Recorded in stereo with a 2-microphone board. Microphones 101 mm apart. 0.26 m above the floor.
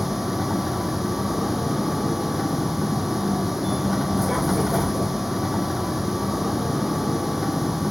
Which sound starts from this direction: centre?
A vehicle, at 0.0 s.